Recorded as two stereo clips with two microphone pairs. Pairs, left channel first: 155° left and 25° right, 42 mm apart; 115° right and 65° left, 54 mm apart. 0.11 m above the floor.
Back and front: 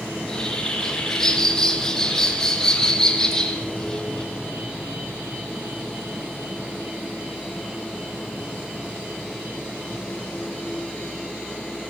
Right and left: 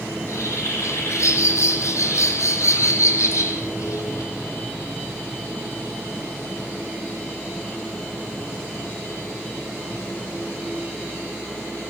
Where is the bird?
135° right, 2.5 m.